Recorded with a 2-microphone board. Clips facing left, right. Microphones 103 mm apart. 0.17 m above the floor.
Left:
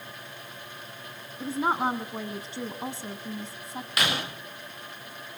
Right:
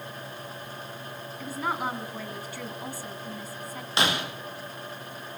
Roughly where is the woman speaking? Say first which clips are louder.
Left 4 dB; left.